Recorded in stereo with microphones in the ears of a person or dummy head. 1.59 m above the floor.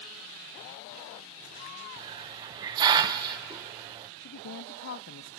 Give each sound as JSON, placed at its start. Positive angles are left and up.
{"t": 2.0, "sound": "a hiss", "side_deg": -20, "distance_m": 0.5}
{"t": 4.2, "sound": "a woman speaking", "side_deg": 65, "distance_m": 0.6}